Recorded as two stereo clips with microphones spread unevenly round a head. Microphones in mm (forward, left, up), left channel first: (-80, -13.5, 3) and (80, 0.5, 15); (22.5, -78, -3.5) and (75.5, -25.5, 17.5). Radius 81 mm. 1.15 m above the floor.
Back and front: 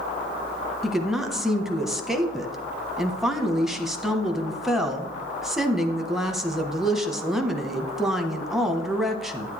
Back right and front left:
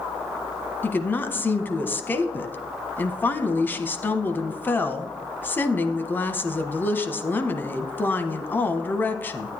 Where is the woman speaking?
85° right, 1.1 m.